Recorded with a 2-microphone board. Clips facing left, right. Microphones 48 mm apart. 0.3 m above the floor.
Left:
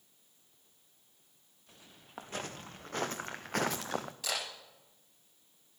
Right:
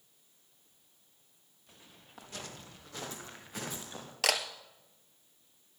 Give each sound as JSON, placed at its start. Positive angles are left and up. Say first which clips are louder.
{"t": 2.2, "sound": "footsteps", "louder": "left 5 dB", "side_deg": 40, "distance_m": 2.5}
{"t": 4.2, "sound": "a camera shutter", "louder": "right 11 dB", "side_deg": -80, "distance_m": 1.6}